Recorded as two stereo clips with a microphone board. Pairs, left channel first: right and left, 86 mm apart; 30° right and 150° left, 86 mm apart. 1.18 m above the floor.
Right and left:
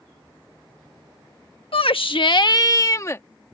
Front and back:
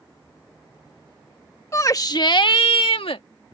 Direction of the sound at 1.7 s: 90° right.